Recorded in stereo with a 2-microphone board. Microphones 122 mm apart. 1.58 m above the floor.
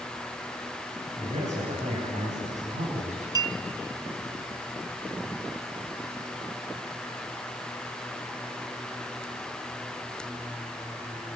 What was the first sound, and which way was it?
A man speaking, 90° right.